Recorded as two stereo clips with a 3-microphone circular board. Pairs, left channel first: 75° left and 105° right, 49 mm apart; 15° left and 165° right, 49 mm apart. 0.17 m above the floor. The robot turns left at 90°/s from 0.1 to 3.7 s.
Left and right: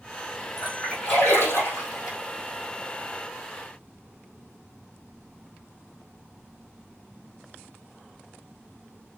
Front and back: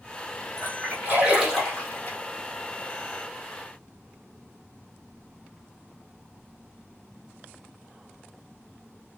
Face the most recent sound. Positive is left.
turn(degrees=-95)